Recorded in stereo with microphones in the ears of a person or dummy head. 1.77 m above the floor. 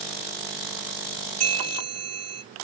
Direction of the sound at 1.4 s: 40° right (ahead or behind).